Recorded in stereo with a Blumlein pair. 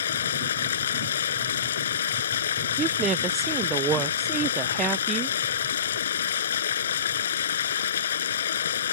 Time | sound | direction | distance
0.0 | running water | 65° left | ?
2.8 | a woman speaking | 25° right | ?